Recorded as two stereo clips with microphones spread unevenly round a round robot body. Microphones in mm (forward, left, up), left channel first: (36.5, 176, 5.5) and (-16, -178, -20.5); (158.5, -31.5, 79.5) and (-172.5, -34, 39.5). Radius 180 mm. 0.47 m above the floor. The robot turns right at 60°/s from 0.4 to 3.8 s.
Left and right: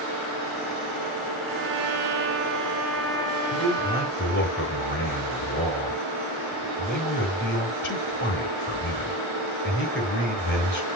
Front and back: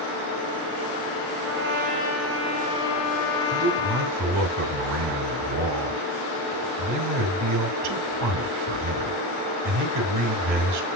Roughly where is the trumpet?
Behind right.